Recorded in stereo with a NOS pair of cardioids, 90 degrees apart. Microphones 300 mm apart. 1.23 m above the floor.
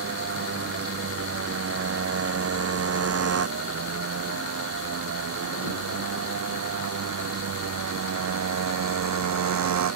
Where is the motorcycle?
45° right; by 10.0 s 65° right.